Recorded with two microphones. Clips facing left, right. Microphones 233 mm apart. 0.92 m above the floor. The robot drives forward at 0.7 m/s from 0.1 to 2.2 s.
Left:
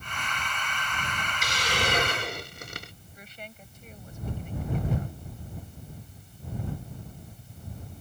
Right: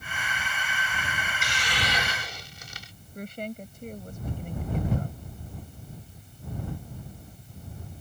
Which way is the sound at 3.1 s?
55° right (ahead or behind).